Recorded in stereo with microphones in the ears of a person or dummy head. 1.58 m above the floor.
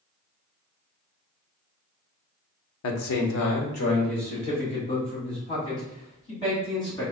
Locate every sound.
2.8 s a man speaking: 75° left (ahead or behind), 0.7 m; by 7.0 s 25° left (ahead or behind), 3.5 m